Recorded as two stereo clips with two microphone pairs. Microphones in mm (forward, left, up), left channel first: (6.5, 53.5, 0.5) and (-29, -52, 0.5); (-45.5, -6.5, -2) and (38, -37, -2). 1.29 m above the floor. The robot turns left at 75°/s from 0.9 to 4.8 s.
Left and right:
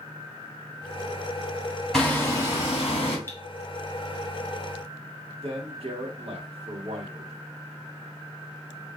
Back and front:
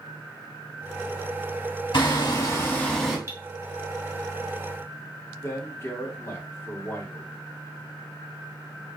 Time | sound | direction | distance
1.9 | hammering | 155° left | 2 m
3.3 | cutlery clinking | 15° left | 0.8 m
5.4 | a man speaking | 135° right | 1.2 m